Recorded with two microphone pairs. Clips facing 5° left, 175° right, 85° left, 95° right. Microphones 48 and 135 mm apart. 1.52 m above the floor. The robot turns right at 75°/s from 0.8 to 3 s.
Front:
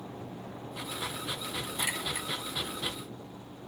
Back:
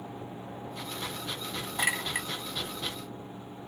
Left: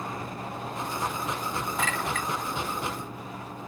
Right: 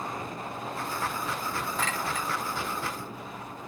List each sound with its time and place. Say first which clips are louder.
1.8 s a clink: back 6 dB, left 2 dB; 165° left, 1.8 m; by 2.3 s 155° right, 1.8 m